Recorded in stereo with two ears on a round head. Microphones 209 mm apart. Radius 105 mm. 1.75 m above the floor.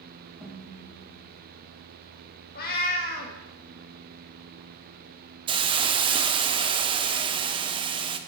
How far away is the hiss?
About 0.8 m.